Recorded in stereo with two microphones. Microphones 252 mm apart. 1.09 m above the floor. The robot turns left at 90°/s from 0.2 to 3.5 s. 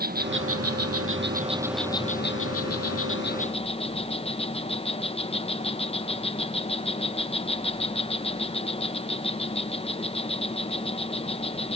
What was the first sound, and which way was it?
An insect, 40° right.